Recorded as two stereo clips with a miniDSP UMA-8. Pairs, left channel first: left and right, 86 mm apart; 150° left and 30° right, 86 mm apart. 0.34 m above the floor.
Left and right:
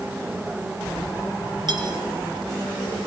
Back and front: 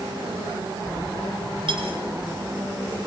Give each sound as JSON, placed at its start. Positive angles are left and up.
{"t": 1.7, "sound": "cutlery clinking", "azimuth_deg": -55, "distance_m": 2.5}